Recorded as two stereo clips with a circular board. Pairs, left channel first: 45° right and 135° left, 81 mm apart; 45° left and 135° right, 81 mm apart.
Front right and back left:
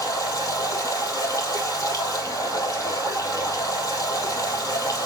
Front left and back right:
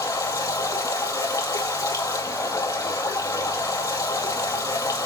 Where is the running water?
Straight ahead, 2 m.